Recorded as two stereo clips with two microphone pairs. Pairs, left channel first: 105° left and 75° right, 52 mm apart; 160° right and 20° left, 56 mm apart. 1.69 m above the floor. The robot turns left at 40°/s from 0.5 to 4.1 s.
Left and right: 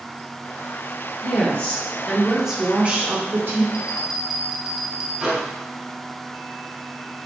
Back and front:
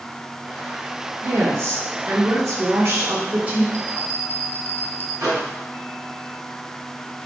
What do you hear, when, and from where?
1.2 s a woman speaking: 55° left, 1.2 m; by 3.6 s 40° right, 1.2 m
3.7 s a bell: 130° right, 0.5 m; by 5.1 s 145° right, 0.5 m
5.2 s a microwave: 10° left, 1.7 m